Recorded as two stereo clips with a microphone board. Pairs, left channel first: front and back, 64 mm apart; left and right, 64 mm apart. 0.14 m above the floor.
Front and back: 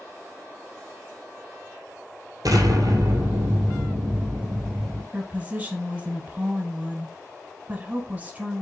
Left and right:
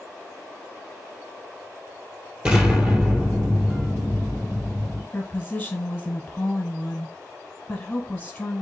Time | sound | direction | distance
2.5 | an explosion | 160° right | 2.0 m
5.1 | a woman speaking | 140° left | 1.1 m